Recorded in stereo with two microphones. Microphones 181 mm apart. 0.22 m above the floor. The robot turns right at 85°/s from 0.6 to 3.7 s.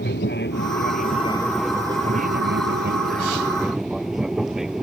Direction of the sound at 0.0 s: 95° left.